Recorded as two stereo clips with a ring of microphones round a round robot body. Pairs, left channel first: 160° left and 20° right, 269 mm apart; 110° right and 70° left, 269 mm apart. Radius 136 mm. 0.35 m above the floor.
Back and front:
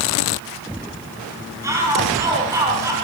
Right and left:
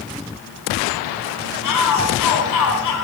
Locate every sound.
1.6 s a shout: 100° right, 6.5 m